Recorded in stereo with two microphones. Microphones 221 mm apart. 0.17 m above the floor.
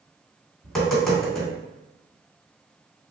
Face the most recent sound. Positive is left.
turn(degrees=0)  # may be behind; listen again after turning